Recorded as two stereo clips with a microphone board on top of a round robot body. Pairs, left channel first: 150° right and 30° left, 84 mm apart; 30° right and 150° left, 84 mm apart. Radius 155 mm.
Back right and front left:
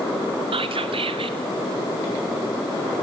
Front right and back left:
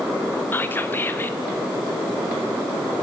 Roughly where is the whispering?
Ahead left.